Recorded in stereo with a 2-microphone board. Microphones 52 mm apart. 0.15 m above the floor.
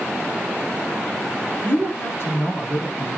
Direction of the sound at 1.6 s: 50° left (ahead or behind).